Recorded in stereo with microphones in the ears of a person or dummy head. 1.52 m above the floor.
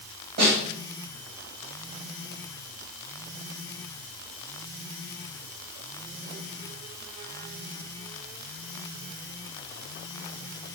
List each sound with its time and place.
0.4 s a snare drum: 60° right (ahead or behind), 1.9 m